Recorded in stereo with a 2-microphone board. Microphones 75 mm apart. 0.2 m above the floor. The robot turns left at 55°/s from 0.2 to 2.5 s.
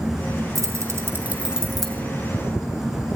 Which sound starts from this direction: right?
Keys jangling, at 0.6 s.